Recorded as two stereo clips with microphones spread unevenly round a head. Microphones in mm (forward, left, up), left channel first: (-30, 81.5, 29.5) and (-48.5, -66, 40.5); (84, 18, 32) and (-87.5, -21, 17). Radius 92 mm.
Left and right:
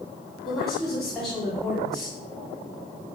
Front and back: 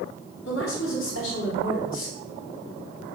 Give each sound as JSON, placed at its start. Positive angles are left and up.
{"t": 0.5, "sound": "a woman speaking", "azimuth_deg": -5, "distance_m": 4.0}